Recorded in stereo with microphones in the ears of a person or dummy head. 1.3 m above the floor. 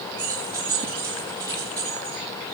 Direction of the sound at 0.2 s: 10° right (ahead or behind).